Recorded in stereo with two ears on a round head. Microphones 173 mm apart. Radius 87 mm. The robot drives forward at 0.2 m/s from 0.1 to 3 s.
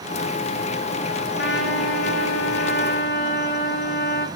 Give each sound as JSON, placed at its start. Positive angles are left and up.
{"t": 1.4, "sound": "a trumpet", "side_deg": 60, "distance_m": 1.7}